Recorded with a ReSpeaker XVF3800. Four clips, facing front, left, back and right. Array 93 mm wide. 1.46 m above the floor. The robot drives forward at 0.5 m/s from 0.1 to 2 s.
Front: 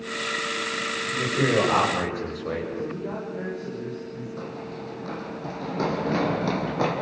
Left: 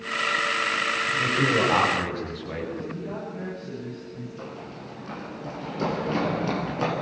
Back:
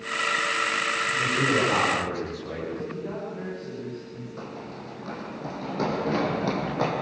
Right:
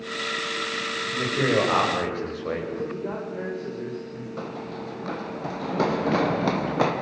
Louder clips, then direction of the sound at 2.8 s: Right 3 dB, front 2 dB; 75° right.